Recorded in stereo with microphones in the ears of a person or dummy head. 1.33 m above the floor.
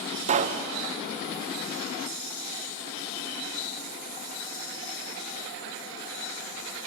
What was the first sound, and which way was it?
A pop, 35° right (ahead or behind).